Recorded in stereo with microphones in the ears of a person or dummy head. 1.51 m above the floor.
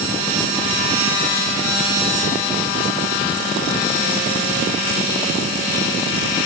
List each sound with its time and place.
Only background noise.